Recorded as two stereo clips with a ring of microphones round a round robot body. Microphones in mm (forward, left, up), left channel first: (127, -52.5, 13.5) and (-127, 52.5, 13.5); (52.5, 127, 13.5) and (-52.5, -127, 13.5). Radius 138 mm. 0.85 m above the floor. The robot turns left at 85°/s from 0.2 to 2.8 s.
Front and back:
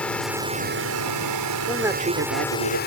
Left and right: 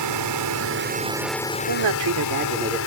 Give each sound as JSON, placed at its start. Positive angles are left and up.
{"t": 0.0, "sound": "a drone", "azimuth_deg": -110}
{"t": 1.7, "sound": "a man speaking", "azimuth_deg": -105}